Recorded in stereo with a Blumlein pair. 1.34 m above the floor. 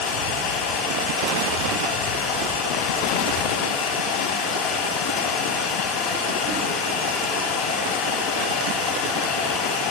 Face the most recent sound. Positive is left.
turn(degrees=40)